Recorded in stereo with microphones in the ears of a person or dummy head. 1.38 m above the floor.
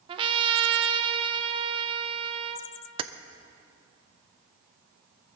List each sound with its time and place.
0.1 s a trumpet: 30° right (ahead or behind), 0.7 m
3.0 s keys jangling: 35° right (ahead or behind), 0.6 m